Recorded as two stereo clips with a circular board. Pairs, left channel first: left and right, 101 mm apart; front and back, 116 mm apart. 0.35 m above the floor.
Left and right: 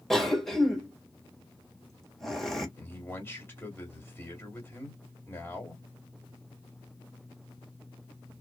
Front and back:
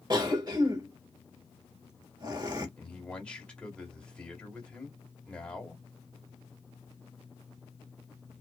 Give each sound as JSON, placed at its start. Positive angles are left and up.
{"t": 0.1, "sound": "a cough", "azimuth_deg": 175, "distance_m": 1.4}
{"t": 2.8, "sound": "a man speaking", "azimuth_deg": 70, "distance_m": 1.5}